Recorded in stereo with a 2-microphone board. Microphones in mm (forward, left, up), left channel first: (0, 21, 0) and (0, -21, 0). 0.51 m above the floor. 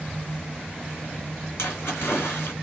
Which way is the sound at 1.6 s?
75° left (ahead or behind).